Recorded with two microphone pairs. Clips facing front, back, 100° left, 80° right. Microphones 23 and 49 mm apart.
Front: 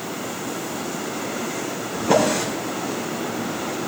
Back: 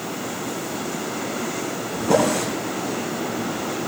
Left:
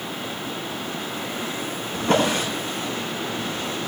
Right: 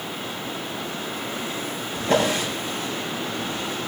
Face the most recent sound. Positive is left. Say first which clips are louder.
# even, left 1 dB
turn(degrees=70)